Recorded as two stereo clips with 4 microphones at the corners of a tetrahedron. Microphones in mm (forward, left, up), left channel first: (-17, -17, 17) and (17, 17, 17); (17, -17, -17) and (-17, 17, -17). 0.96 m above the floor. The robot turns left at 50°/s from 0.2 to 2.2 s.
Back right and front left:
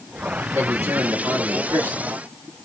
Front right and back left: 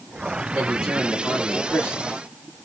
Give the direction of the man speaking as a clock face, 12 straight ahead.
10 o'clock.